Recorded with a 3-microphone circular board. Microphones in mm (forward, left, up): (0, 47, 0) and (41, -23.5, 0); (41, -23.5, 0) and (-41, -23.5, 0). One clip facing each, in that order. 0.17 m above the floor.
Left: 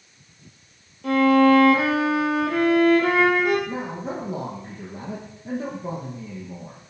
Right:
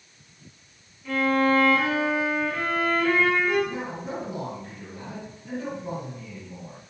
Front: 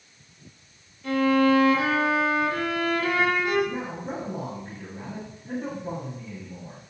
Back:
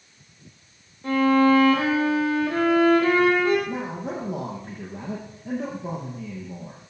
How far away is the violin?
About 3.5 m.